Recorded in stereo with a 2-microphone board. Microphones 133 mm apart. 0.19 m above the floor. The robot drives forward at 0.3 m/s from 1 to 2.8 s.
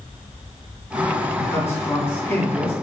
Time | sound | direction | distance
1.4 | a man speaking | 20° left (ahead or behind) | 1.4 m